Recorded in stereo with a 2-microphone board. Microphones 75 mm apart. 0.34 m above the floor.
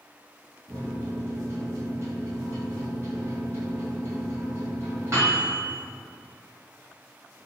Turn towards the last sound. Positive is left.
turn(degrees=-40)  # may be behind; listen again after turning